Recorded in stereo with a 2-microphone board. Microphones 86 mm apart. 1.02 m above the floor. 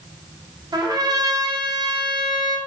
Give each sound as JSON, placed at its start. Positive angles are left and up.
{"t": 0.7, "sound": "a trumpet", "side_deg": -50, "distance_m": 0.6}